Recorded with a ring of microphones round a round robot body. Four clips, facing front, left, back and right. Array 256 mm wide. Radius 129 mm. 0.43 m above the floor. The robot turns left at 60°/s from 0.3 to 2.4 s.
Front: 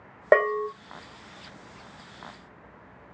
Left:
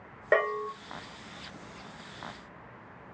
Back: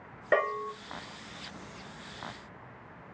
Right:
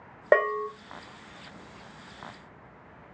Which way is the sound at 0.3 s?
30° right.